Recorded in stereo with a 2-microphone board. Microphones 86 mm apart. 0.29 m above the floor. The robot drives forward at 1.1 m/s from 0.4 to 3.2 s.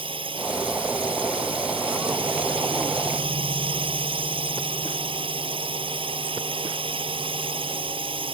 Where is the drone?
80° right.